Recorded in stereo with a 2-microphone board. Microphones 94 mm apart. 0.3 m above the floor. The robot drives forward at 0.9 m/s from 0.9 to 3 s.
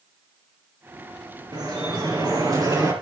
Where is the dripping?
50° right (ahead or behind), 4.5 m; by 2.9 s 40° right (ahead or behind), 5.5 m.